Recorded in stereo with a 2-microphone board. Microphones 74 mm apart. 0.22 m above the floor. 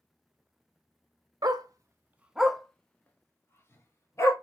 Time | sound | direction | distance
1.4 | a dog barking | 65° right (ahead or behind) | 0.7 m